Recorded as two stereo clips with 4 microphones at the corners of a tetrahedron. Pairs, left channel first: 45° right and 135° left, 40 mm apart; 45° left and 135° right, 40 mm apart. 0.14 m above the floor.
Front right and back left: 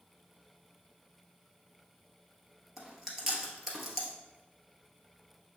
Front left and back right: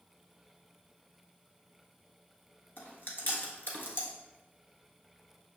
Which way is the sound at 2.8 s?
50° left.